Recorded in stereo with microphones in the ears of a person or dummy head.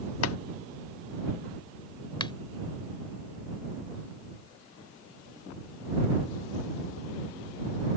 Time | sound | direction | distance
0.2 | chopping | 85° left | ?
2.2 | a finger snap | 25° left (ahead or behind) | ?